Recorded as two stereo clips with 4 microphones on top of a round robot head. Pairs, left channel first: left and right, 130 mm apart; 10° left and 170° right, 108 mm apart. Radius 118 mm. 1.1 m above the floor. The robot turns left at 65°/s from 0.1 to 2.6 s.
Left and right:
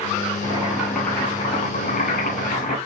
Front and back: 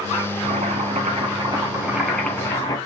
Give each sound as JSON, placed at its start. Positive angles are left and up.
{"t": 0.4, "sound": "boiling", "azimuth_deg": -150, "distance_m": 8.5}